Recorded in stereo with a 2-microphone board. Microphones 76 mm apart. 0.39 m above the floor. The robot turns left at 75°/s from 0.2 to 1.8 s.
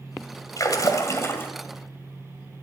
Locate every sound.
0.6 s a splash: 105° left, 2.5 m; by 1.5 s 35° left, 2.5 m